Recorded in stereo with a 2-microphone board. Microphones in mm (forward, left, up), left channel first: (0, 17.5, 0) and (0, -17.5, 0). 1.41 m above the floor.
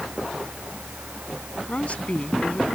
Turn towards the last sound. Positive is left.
turn(degrees=45)  # may be behind; listen again after turning